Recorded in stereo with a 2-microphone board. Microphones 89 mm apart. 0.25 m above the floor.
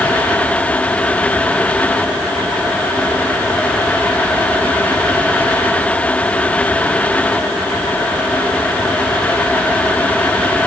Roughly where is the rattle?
I don't hear a rattle.